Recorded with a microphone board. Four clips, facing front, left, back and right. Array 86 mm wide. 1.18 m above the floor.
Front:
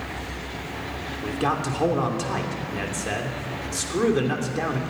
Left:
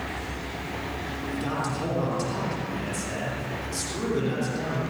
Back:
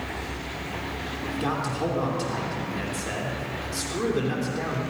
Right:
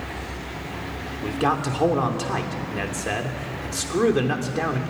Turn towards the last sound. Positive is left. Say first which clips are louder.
# right 7 dB, front 3 dB
turn(degrees=-65)